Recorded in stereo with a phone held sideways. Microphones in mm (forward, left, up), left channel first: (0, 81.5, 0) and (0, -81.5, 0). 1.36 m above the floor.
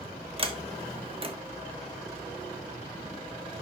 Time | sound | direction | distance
0.4 | a sliding door | 35° right (ahead or behind) | 1.1 m